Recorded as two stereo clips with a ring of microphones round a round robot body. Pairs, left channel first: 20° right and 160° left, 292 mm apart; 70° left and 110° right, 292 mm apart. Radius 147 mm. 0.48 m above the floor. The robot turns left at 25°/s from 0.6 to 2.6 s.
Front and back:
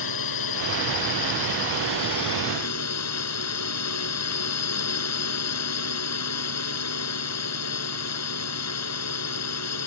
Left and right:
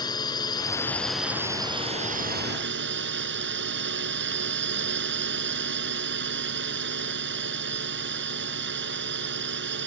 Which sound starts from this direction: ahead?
A drone, at 0.0 s.